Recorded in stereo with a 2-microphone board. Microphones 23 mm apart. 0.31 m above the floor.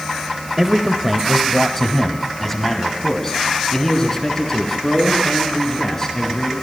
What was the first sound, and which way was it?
A man speaking, 15° right (ahead or behind).